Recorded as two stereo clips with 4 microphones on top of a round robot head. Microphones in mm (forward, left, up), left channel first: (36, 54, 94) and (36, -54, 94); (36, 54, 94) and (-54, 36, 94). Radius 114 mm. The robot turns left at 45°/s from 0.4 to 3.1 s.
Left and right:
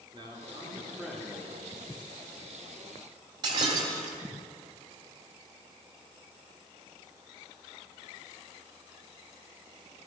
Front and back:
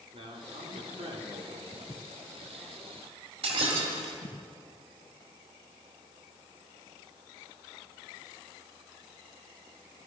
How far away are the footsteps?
About 0.9 m.